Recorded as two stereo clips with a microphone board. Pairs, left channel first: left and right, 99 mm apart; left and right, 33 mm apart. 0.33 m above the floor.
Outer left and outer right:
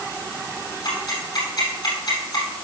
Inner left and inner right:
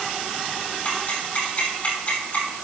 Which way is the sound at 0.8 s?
50° left (ahead or behind).